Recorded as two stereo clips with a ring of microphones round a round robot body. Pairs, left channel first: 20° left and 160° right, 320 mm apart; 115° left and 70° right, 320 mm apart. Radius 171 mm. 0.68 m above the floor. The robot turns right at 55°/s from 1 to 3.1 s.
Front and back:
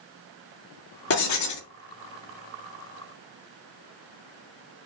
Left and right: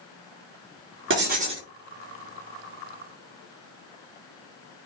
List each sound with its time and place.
1.1 s writing: 20° right, 2.5 m; by 1.7 s 15° left, 2.5 m